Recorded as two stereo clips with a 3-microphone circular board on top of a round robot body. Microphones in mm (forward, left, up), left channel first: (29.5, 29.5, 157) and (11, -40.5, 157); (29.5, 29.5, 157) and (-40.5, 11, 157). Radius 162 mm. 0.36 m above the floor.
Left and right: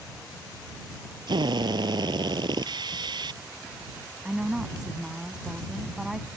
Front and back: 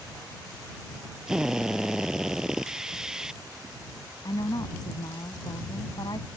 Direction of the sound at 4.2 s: 20° right.